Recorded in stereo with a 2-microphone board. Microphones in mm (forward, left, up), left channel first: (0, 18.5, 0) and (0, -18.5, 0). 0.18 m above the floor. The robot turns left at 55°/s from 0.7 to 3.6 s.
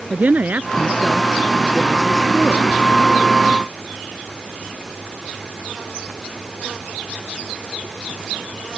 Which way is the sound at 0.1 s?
120° right.